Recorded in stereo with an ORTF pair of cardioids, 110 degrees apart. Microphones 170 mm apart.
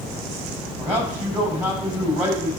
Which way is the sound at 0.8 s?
15° right.